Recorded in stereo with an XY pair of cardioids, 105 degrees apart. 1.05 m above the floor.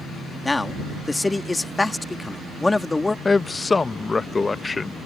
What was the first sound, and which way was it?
A man speaking, 15° left.